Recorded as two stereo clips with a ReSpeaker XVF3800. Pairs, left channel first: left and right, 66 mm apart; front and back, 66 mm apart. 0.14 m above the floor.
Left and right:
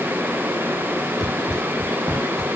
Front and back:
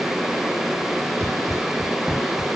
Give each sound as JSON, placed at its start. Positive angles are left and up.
{"t": 1.2, "sound": "running footsteps", "azimuth_deg": -80, "distance_m": 2.5}